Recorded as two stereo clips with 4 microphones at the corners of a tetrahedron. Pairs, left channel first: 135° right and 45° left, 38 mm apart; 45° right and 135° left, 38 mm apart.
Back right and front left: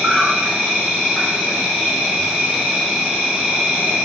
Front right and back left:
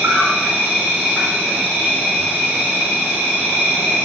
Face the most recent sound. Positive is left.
turn(degrees=105)